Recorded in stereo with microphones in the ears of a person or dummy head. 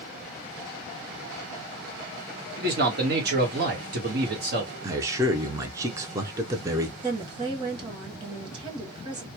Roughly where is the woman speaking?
Right.